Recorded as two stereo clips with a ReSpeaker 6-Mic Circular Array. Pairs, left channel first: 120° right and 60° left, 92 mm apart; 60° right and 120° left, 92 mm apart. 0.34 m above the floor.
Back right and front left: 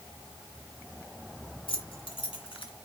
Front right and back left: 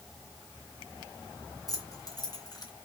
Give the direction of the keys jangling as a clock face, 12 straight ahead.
4 o'clock.